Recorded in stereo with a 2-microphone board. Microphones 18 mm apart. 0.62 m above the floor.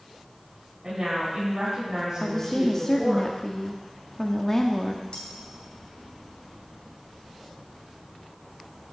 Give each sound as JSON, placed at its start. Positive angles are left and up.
{"t": 0.8, "sound": "a woman speaking", "side_deg": -30, "distance_m": 4.5}
{"t": 2.2, "sound": "a woman speaking", "side_deg": 25, "distance_m": 0.6}
{"t": 5.1, "sound": "cutlery clinking", "side_deg": 80, "distance_m": 2.0}